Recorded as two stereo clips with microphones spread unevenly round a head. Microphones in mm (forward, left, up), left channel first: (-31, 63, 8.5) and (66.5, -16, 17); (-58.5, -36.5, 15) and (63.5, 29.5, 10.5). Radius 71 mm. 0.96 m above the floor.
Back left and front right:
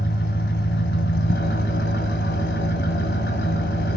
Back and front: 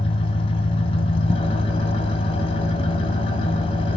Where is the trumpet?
No trumpet in this recording.